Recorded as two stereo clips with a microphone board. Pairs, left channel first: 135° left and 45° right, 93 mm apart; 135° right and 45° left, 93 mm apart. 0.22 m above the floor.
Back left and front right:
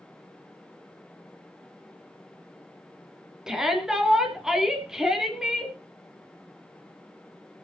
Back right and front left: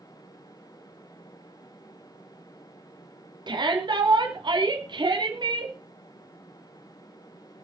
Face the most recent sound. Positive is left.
turn(degrees=40)